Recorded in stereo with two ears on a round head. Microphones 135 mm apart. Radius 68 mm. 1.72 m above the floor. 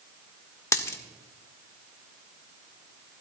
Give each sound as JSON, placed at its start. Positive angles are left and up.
{"t": 0.7, "sound": "a dropped coin", "side_deg": 20, "distance_m": 1.5}